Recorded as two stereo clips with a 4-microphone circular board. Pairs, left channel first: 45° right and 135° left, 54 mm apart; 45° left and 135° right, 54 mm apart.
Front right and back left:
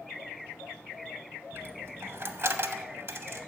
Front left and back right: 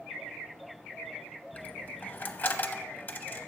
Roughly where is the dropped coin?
Left.